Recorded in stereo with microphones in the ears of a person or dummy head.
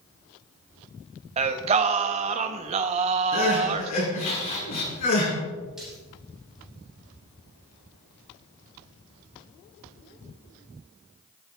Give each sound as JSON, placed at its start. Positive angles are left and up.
{"t": 1.4, "sound": "singing", "side_deg": -35, "distance_m": 1.2}
{"t": 3.3, "sound": "crying", "side_deg": 40, "distance_m": 6.5}
{"t": 5.8, "sound": "a splash", "side_deg": 0, "distance_m": 8.5}